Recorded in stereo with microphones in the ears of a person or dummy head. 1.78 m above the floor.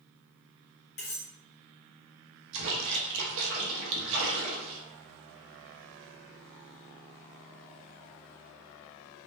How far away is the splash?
About 0.7 m.